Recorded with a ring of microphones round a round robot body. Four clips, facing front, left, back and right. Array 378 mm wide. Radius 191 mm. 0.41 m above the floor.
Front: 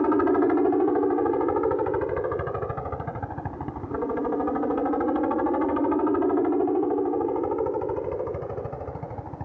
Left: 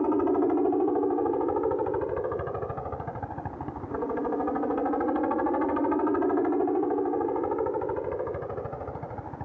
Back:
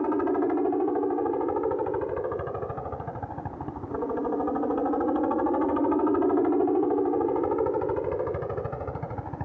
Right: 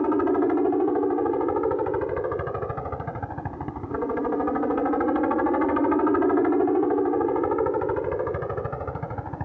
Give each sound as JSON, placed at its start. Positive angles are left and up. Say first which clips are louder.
{"t": 0.0, "sound": "a helicopter", "louder": "right 2 dB, front 4 dB", "azimuth_deg": -25}